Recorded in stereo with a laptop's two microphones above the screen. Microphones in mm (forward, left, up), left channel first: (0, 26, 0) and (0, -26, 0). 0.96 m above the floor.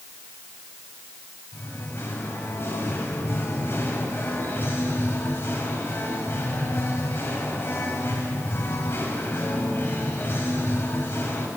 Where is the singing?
45° left (ahead or behind), 5 m.